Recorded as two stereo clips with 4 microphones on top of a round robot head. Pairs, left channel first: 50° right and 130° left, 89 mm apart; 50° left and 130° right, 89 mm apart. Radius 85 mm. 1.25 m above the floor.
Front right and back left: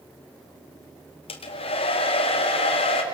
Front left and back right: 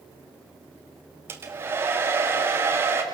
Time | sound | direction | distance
1.3 | a hair dryer | 65° right | 2.0 m